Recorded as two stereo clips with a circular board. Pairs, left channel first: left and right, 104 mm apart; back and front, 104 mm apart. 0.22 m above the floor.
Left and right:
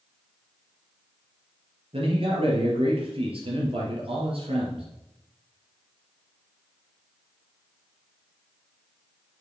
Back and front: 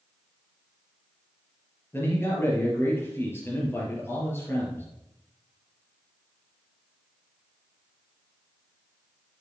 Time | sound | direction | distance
1.9 | a man speaking | 110° right | 3.5 m